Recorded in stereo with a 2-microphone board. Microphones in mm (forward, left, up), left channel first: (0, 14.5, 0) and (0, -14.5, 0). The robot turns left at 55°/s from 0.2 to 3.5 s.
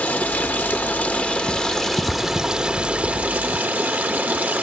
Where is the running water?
105° left, 1.0 m; by 4.6 s 75° right, 1.0 m.